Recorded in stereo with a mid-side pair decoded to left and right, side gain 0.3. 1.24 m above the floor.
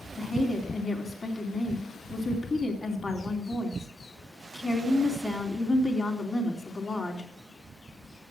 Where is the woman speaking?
40° left, 3.5 m.